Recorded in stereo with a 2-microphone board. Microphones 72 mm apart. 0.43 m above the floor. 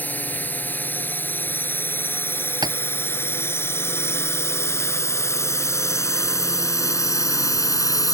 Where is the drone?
25° left (ahead or behind); by 8.1 s 55° left (ahead or behind).